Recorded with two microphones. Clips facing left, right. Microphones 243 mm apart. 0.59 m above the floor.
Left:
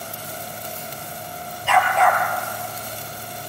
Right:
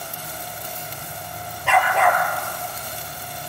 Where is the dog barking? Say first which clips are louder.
Even; 60° right (ahead or behind), 3.5 m.